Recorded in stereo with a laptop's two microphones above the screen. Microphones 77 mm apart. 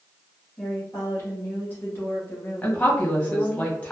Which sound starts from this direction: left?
A woman speaking, at 0.6 s.